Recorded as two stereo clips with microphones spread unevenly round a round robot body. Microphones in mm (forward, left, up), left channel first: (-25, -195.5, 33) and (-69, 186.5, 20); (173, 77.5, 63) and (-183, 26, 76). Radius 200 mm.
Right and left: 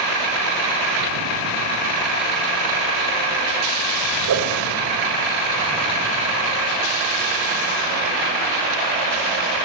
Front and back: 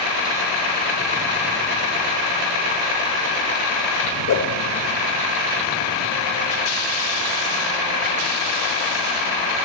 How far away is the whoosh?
About 2 m.